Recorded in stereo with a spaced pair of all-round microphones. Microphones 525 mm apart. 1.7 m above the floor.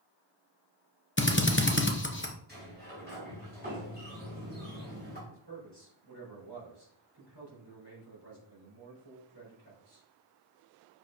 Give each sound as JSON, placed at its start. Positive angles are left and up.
{"t": 1.2, "sound": "a drill", "side_deg": 20, "distance_m": 0.9}
{"t": 2.5, "sound": "a sliding door", "side_deg": -20, "distance_m": 3.0}
{"t": 5.3, "sound": "a man speaking", "side_deg": -50, "distance_m": 4.0}